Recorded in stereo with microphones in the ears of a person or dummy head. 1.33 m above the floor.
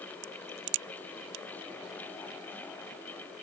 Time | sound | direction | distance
0.2 | a crack | 60° right (ahead or behind) | ?